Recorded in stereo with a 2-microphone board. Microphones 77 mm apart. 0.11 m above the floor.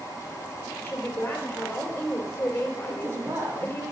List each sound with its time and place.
0.8 s a woman speaking: 30° left (ahead or behind), 2.5 m
2.9 s a woman speaking: 30° right (ahead or behind), 4 m